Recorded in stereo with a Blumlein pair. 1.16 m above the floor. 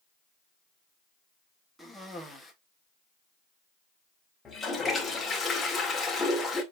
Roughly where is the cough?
Ahead.